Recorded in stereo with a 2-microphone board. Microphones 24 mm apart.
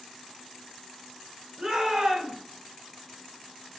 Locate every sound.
1.6 s a shout: 20° right (ahead or behind), 1.1 m